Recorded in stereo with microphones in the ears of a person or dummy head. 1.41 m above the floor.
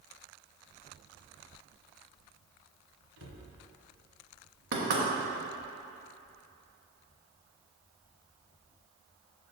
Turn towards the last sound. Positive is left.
turn(degrees=-60)  # may be behind; listen again after turning